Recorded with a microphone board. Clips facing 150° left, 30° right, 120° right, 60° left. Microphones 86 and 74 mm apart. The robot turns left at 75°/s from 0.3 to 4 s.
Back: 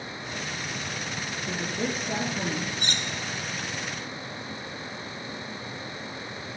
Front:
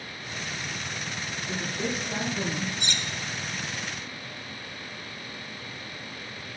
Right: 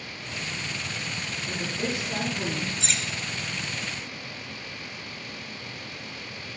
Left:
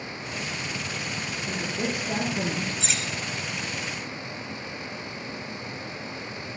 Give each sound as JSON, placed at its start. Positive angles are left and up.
{"t": 1.5, "sound": "a woman speaking", "azimuth_deg": 145, "distance_m": 6.0}
{"t": 2.8, "sound": "cutlery clinking", "azimuth_deg": 150, "distance_m": 0.8}